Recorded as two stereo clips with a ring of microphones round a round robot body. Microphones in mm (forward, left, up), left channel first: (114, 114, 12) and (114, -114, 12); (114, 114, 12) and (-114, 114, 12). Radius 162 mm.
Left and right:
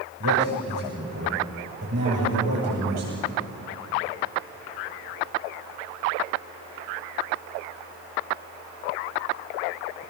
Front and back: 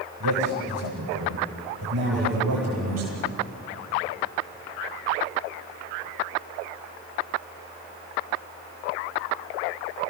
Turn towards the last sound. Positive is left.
turn(degrees=-140)